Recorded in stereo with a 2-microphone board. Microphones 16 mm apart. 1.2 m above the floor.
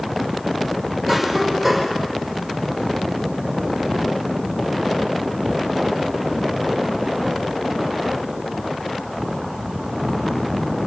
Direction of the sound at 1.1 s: 10° left (ahead or behind).